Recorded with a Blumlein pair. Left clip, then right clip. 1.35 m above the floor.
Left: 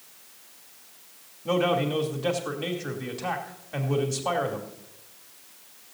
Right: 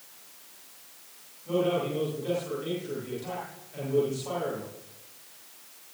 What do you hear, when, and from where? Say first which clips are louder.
1.4 s a man speaking: left 3 dB; 35° left, 3 m